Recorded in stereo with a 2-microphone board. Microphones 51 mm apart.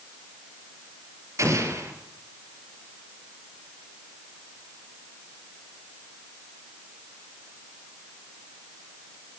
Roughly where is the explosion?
Right.